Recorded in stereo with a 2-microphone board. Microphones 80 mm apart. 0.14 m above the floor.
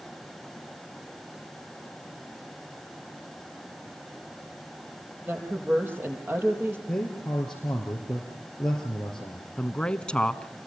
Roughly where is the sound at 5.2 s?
Right.